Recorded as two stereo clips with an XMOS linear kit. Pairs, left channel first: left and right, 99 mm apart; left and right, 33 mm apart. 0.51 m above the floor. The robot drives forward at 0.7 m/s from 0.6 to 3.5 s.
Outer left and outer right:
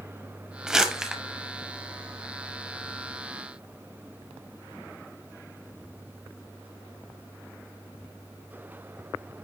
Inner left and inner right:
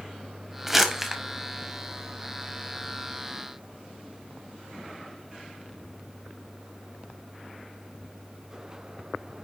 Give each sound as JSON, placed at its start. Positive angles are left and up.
{"t": 0.7, "sound": "crumpling", "side_deg": -5, "distance_m": 1.3}